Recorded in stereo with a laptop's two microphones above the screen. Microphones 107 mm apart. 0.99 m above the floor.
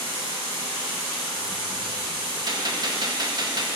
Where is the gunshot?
40° right (ahead or behind), 0.9 m.